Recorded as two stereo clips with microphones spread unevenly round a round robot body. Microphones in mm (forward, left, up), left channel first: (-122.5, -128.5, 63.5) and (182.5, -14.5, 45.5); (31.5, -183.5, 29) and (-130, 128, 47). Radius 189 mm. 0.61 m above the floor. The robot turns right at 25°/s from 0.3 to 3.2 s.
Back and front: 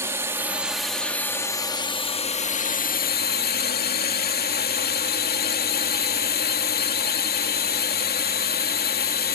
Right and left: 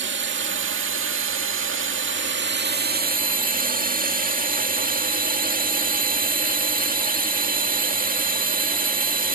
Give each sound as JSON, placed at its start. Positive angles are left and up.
{"t": 0.0, "sound": "a drone", "azimuth_deg": 90}